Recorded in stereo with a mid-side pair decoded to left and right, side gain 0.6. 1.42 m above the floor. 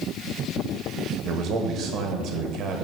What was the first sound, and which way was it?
A man speaking, 60° right.